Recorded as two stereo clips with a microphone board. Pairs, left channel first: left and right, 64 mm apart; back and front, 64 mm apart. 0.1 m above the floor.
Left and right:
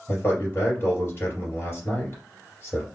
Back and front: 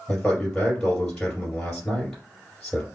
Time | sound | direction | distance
0.1 | a man speaking | 100° left | 2.0 m